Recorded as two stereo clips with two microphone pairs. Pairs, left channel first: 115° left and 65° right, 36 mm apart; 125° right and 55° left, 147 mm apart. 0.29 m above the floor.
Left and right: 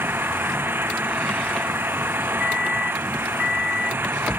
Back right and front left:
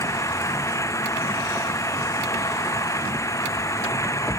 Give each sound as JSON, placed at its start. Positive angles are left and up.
{"t": 0.0, "sound": "an engine running", "azimuth_deg": -60}